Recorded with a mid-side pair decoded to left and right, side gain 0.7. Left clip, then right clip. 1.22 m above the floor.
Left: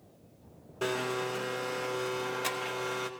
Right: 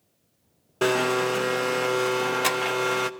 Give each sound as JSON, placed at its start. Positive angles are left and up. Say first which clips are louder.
{"t": 0.8, "sound": "a blender", "louder": "right 10 dB", "azimuth_deg": -35, "distance_m": 0.9}